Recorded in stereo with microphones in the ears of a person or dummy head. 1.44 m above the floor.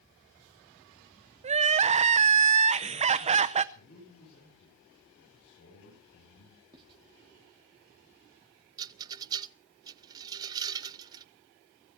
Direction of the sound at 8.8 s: 20° right (ahead or behind).